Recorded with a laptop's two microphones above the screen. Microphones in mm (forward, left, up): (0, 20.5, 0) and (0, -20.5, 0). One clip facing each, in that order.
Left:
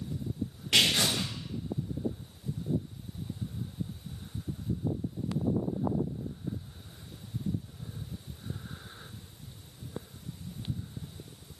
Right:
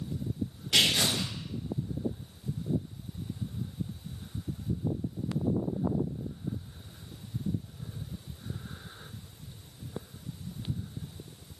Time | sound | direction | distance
0.7 | tearing paper | 75° left (ahead or behind) | 1.4 m